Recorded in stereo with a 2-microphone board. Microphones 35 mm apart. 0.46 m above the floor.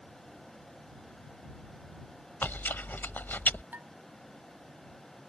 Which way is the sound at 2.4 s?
80° left.